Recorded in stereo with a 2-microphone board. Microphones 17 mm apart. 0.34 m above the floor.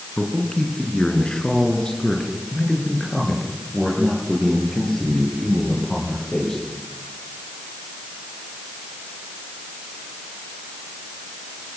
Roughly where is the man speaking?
Left.